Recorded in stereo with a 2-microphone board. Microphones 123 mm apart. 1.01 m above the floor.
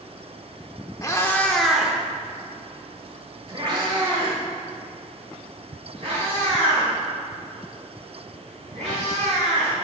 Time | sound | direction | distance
1.0 | a cat meowing | 25° left (ahead or behind) | 0.7 m